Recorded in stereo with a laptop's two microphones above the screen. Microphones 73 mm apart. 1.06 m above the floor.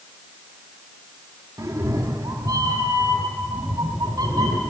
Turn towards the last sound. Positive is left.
turn(degrees=-75)  # may be behind; listen again after turning